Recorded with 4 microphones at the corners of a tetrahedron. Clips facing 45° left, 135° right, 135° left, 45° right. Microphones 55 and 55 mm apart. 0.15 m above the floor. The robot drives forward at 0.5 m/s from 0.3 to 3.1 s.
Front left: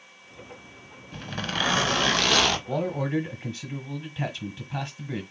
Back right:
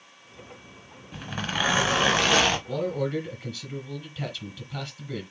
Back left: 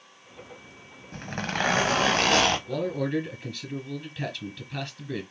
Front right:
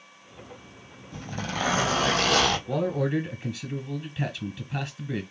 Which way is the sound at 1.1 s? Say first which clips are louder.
Back right 1 dB, back left 2 dB; 145° left.